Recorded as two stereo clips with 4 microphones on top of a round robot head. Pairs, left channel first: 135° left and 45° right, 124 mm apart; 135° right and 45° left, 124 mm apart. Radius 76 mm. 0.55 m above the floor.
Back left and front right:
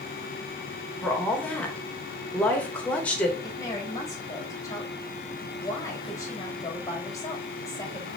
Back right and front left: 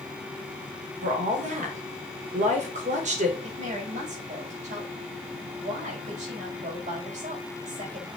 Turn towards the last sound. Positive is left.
turn(degrees=70)